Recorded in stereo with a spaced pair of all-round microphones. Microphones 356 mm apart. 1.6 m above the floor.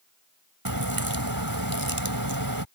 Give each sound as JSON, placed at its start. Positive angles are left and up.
{"t": 0.7, "sound": "a crack", "side_deg": -70}